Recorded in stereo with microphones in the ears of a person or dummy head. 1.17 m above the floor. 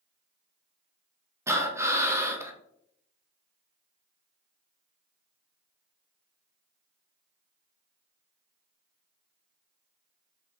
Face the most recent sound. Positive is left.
turn(degrees=-10)  # may be behind; listen again after turning